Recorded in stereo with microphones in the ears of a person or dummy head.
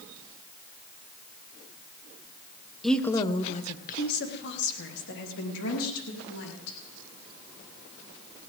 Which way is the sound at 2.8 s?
5° right (ahead or behind).